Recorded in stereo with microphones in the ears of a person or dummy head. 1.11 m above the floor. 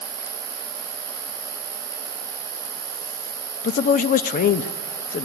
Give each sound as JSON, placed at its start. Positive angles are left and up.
{"t": 0.0, "sound": "an insect", "side_deg": -30, "distance_m": 6.5}
{"t": 3.6, "sound": "a man speaking", "side_deg": 45, "distance_m": 0.7}